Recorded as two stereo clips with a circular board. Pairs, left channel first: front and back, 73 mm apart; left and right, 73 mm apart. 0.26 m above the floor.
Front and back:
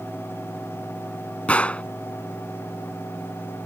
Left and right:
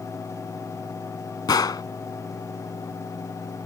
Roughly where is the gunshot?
Left.